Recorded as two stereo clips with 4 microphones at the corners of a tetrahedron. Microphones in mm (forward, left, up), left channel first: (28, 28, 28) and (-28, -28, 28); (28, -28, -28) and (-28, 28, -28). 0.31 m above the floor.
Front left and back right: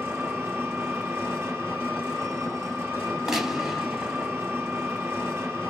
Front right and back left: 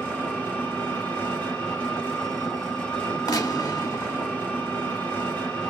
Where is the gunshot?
55° right, 1.0 m.